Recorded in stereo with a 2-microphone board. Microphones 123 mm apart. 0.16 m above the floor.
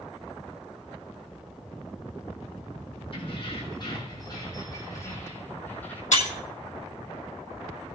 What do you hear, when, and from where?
3.1 s keys jangling: 50° left (ahead or behind), 4.5 m; by 6.0 s 10° left (ahead or behind), 4 m
6.1 s breaking glass: 75° left (ahead or behind), 3.5 m